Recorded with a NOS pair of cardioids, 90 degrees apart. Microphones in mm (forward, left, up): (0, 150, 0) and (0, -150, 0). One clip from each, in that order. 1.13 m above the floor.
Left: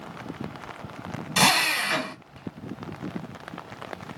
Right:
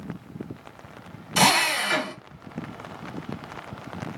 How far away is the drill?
About 1.2 m.